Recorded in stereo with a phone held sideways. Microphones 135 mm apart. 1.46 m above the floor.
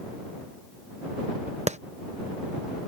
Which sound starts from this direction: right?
A clap, at 1.7 s.